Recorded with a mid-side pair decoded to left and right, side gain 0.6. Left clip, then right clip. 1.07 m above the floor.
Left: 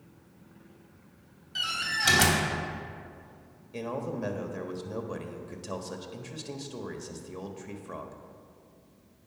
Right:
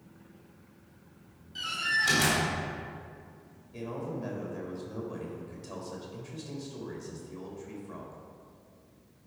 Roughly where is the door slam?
Ahead left.